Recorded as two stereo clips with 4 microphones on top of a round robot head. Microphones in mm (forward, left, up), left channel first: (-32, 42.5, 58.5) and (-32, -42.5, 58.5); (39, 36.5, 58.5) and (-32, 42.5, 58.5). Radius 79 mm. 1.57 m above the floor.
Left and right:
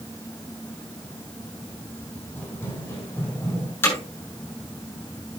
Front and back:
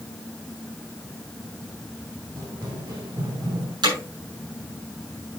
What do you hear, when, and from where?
2.4 s running footsteps: 160° left, 4.5 m; by 3.7 s 145° left, 5.5 m
3.8 s hammering: 155° left, 7 m